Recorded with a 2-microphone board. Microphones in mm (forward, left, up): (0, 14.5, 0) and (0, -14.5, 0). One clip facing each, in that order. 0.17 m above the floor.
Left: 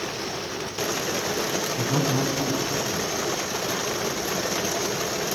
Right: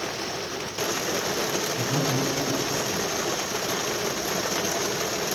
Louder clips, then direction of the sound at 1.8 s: Left 3 dB; 20° left (ahead or behind).